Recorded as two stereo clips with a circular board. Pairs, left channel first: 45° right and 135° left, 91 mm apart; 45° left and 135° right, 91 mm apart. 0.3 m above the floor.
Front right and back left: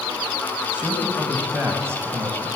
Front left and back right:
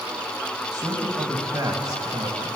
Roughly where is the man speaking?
Behind right.